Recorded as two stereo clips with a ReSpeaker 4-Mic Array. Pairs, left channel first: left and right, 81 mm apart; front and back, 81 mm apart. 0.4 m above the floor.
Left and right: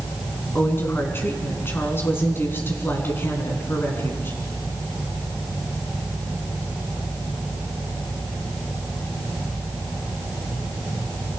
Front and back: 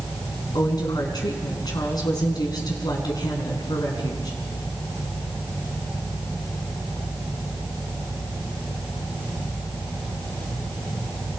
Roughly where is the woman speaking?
Ahead left.